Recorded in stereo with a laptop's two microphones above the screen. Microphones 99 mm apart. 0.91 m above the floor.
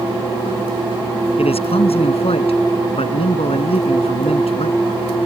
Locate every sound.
1.4 s a man speaking: 85° left